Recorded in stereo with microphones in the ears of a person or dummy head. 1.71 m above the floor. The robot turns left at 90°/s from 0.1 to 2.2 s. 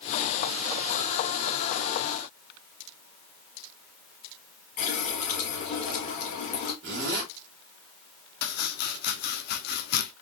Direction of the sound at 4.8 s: 40° left (ahead or behind).